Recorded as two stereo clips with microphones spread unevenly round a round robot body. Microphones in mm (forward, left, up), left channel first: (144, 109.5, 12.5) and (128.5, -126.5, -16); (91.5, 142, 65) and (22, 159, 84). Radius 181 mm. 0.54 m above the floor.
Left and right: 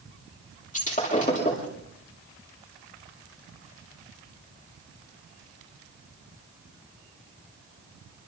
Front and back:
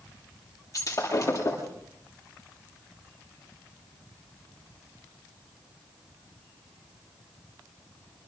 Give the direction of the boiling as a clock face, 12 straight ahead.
No boiling in this recording.